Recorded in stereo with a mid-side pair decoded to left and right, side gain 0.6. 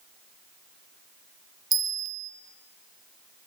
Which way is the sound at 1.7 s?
30° right.